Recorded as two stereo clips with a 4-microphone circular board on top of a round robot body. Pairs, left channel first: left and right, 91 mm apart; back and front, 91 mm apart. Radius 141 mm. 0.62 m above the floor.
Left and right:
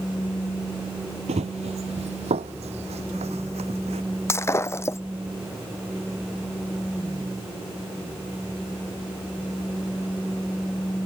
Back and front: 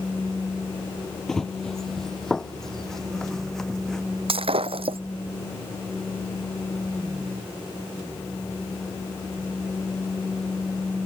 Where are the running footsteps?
95° right.